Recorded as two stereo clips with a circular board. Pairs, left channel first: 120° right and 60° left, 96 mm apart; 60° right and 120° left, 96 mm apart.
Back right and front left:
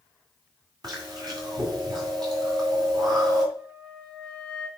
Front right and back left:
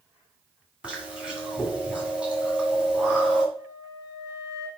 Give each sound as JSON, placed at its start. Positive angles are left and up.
{"t": 0.8, "sound": "chewing", "azimuth_deg": 45, "distance_m": 2.5}
{"t": 3.5, "sound": "a flute", "azimuth_deg": 65, "distance_m": 5.5}